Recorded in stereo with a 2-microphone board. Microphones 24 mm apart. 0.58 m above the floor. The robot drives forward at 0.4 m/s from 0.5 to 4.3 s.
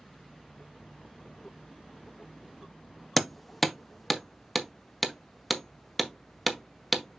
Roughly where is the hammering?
Centre.